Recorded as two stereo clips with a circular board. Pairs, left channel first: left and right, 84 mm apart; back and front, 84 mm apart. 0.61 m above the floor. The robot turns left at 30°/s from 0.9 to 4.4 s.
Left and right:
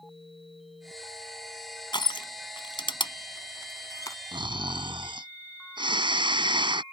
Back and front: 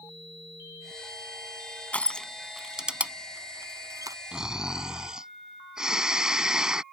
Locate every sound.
1.9 s crushing: 110° left; by 4.2 s 40° left
4.3 s snoring: 80° right